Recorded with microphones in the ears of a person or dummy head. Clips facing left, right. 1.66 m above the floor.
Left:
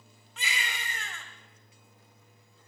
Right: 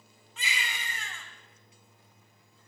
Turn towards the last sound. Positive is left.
turn(degrees=65)  # may be behind; listen again after turning